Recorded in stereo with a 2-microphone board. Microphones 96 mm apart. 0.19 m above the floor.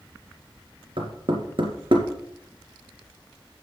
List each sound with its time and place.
1.0 s knocking: 65° right (ahead or behind), 2.5 m